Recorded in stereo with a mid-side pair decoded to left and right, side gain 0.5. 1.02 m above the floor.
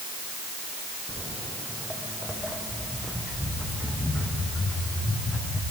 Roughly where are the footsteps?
Ahead.